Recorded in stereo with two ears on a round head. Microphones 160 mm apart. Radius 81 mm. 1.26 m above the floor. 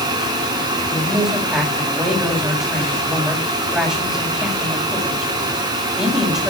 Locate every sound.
0.9 s a man speaking: 10° right (ahead or behind), 7.5 m